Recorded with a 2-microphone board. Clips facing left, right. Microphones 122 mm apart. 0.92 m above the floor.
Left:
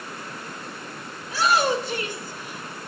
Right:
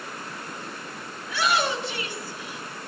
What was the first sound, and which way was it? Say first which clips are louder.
A shout: left 3 dB; 35° left (ahead or behind).